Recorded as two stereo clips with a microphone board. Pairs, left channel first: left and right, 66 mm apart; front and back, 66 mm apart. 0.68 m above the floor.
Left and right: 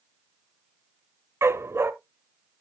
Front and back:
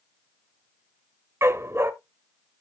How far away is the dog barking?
About 0.7 m.